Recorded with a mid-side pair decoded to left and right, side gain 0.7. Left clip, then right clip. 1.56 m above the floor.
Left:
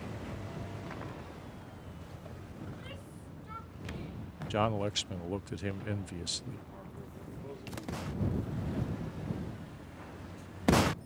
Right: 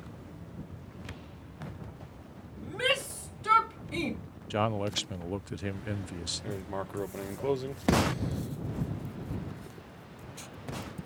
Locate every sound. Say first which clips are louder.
2.6 s a shout: right 22 dB; 70° right; by 4.2 s 75° right
4.5 s a man speaking: right 1 dB; 5° right
6.4 s writing: right 12 dB; 65° right